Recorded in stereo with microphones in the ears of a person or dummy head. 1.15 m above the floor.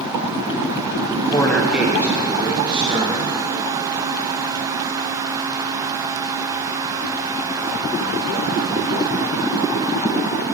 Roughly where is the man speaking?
Left.